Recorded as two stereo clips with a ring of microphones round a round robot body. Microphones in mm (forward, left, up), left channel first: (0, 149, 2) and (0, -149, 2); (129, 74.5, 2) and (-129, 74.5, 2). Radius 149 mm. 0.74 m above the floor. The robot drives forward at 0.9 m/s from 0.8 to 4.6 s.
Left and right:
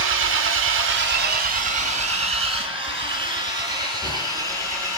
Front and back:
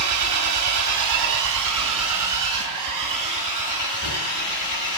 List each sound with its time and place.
0.0 s an engine running: 140° right, 1.4 m; by 5.0 s 170° right, 4.5 m